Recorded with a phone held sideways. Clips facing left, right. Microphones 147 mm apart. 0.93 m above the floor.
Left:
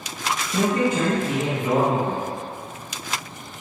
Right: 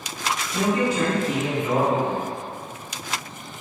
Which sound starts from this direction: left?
A man speaking, at 0.5 s.